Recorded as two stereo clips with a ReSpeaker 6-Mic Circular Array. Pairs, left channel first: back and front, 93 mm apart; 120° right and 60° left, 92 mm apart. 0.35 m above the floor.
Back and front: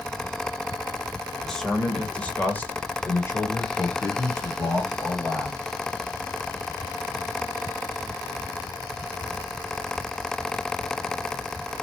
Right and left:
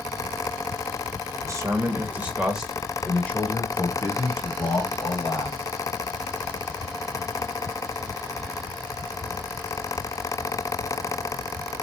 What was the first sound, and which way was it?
A man speaking, 95° left.